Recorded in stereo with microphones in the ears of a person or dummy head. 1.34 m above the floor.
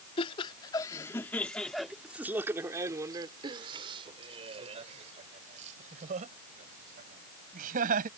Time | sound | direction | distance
0.2 | laughter | 30° left (ahead or behind) | ?